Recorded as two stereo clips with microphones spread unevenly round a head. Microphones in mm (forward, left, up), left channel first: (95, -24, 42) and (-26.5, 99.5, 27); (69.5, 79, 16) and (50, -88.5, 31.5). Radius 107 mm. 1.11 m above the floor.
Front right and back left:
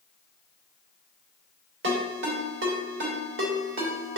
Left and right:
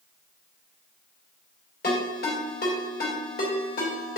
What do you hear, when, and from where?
1.8 s a ringtone: 130° left, 2.5 m